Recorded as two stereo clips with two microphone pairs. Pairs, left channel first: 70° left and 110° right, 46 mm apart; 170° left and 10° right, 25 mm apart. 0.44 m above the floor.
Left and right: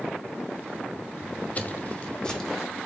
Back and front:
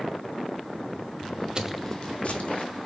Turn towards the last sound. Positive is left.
turn(degrees=155)